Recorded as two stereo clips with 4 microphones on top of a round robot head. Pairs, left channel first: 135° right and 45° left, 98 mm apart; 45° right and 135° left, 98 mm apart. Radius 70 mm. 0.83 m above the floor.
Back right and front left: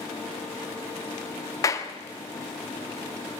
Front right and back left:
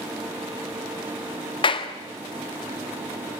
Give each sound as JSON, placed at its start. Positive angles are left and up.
{"t": 1.6, "sound": "a clap", "azimuth_deg": -75, "distance_m": 1.5}